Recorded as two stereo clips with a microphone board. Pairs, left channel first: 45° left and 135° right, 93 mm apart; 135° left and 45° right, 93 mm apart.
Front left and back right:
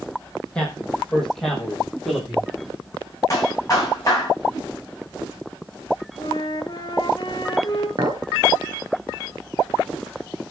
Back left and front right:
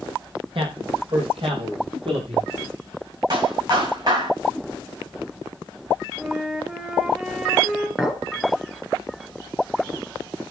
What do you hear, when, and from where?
0.6 s a man speaking: 35° right, 5.5 m; by 2.5 s 45° right, 5.5 m
3.3 s a clap: 10° right, 9.5 m
6.2 s a flute: 35° left, 1.7 m
8.0 s a clink: 125° right, 1.3 m